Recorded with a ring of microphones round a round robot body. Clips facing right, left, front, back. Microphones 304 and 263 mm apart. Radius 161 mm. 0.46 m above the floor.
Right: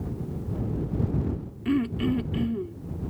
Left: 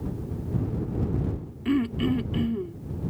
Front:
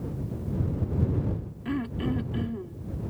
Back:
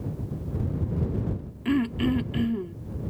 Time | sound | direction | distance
1.6 | throat clearing | 175° left | ?